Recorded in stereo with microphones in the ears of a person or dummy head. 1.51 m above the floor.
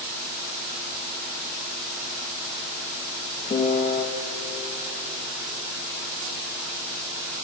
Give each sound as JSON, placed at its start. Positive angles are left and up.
{"t": 3.5, "sound": "a piano", "side_deg": 30, "distance_m": 1.0}